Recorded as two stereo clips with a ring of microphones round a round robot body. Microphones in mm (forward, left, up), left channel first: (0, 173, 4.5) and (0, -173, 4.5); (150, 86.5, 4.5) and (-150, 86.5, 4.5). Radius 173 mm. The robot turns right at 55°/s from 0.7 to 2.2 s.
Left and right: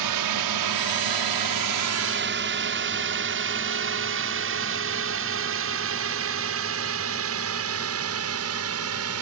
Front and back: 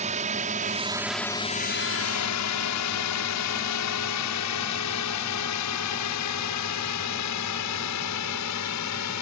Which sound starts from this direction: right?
A drone, at 0.0 s.